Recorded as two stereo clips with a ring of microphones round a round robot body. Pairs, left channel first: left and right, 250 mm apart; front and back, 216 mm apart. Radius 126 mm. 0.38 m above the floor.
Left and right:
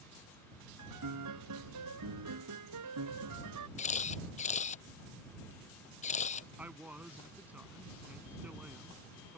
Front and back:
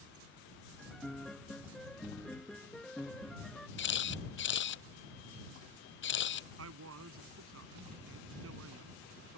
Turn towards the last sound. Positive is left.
turn(degrees=-175)